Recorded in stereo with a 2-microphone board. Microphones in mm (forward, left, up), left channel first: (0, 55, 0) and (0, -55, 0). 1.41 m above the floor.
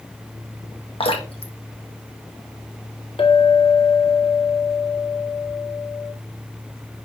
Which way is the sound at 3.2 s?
55° left (ahead or behind).